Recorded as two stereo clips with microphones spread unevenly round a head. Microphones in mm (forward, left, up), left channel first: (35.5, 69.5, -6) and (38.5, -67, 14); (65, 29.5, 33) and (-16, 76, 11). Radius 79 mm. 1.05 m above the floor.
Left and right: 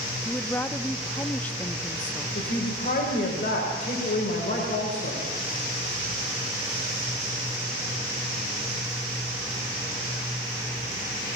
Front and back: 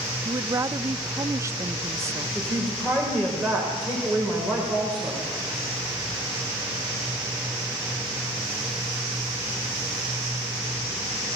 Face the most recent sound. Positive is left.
turn(degrees=55)